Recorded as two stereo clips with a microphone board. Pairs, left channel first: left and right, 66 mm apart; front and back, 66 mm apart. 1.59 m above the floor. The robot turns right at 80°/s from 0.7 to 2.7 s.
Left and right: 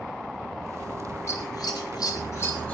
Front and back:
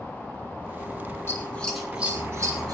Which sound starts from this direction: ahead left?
Scissors, at 1.3 s.